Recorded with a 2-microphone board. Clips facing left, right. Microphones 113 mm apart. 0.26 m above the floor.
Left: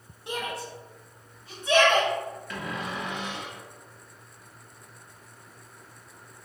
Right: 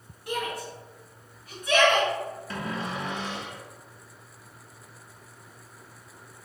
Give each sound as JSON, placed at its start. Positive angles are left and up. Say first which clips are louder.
{"t": 0.3, "sound": "a shout", "louder": "right 2 dB", "side_deg": 25, "distance_m": 1.0}
{"t": 2.5, "sound": "a cupboard door", "louder": "right 1 dB", "side_deg": -35, "distance_m": 0.7}